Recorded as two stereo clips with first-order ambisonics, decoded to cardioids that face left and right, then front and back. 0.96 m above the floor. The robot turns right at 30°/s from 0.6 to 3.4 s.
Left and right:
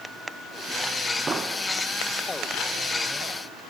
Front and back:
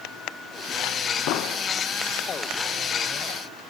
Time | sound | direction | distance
1.3 | an explosion | 20° right | 0.5 m